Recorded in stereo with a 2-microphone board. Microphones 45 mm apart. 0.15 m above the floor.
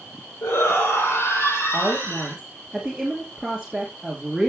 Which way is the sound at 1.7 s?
5° right (ahead or behind).